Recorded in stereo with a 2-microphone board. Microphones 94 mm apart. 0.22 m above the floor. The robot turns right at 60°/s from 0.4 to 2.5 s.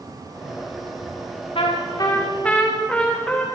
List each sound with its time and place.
1.6 s a trumpet: 110° left, 5.5 m; by 3.5 s 170° left, 5.5 m